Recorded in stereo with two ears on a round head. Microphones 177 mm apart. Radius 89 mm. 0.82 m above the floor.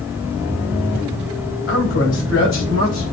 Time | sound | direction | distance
1.7 | a man speaking | 60° left (ahead or behind) | 4 m